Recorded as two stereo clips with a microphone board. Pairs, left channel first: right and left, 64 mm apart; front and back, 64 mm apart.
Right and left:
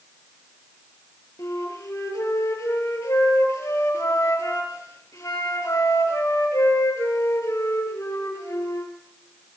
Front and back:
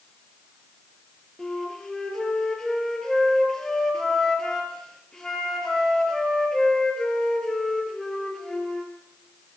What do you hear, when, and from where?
1.4 s a flute: 80° right, 3 m